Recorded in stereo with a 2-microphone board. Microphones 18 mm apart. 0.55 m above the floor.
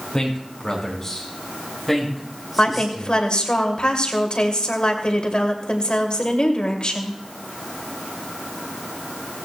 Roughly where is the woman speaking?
Left.